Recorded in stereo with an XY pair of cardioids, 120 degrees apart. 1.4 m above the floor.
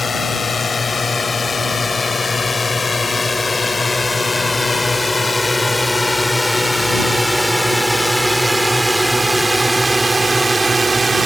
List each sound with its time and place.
0.0 s a drone: 25° left; by 11.3 s 25° right